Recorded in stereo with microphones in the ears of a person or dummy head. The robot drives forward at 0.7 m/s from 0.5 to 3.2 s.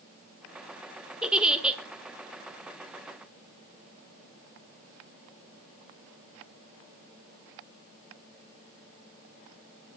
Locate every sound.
1.2 s a giggle: 5° right (ahead or behind), 1.7 m; by 1.8 s 10° right (ahead or behind), 1.3 m